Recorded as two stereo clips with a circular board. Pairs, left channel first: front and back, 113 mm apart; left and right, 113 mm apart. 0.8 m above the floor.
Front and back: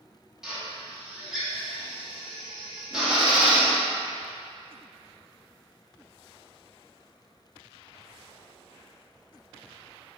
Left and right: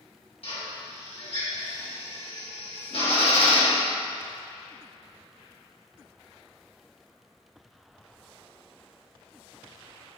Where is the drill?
95° left, 1.7 m.